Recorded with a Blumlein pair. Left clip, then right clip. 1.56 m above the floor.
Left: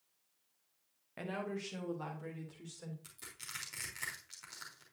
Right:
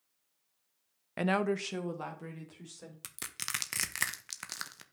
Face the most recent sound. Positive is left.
turn(degrees=-50)